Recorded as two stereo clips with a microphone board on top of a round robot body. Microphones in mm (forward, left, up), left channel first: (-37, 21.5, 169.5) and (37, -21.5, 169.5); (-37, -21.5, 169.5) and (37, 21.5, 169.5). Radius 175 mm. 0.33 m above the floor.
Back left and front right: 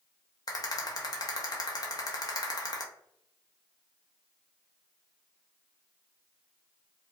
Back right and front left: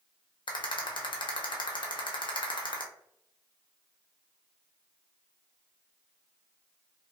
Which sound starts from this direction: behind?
A rattle, at 0.5 s.